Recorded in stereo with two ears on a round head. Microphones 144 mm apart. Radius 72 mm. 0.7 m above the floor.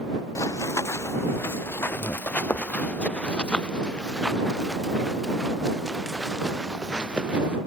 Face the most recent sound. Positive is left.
turn(degrees=-5)  # may be behind; listen again after turning